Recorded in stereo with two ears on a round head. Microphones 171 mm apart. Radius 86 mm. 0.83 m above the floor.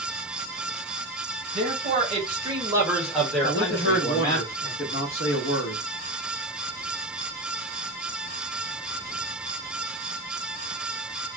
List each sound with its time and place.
1.6 s a man speaking: 45° right (ahead or behind), 1.2 m; by 4.4 s 25° left (ahead or behind), 1.3 m
3.4 s a man speaking: 55° left (ahead or behind), 1.0 m